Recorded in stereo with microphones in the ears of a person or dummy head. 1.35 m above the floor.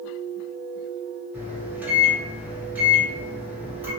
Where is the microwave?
10° right (ahead or behind), 1.4 m.